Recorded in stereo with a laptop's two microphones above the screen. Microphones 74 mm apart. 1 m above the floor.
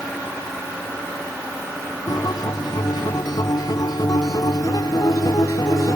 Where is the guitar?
65° left (ahead or behind).